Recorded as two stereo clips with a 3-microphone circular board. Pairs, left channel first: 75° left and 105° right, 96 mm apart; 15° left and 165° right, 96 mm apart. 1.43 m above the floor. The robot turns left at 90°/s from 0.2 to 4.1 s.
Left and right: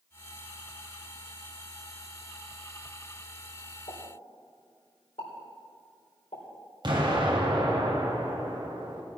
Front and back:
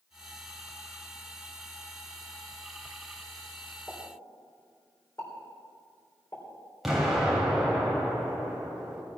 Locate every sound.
3.9 s a pop: 90° left, 4 m; by 6.4 s 70° left, 4 m
6.8 s an explosion: 75° right, 2.5 m